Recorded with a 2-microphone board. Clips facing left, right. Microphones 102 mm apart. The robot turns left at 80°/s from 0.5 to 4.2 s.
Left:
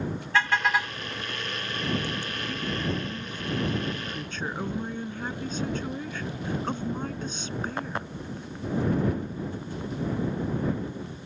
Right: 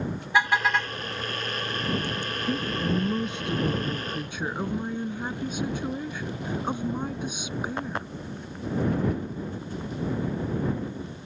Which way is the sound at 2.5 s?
30° right.